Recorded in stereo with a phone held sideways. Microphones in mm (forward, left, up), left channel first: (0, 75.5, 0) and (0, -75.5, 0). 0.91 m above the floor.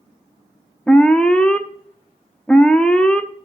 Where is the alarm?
5° left (ahead or behind), 0.9 m.